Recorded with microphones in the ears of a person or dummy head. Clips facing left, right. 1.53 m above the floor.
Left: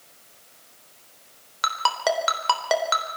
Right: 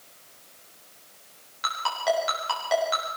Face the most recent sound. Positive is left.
turn(degrees=80)